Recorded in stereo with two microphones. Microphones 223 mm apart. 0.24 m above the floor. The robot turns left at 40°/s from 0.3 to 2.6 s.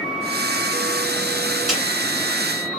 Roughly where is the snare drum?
Centre.